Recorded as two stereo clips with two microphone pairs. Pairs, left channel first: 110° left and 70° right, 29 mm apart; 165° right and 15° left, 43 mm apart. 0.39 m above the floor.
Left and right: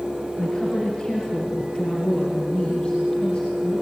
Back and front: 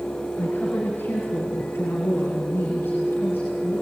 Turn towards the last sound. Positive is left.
turn(degrees=175)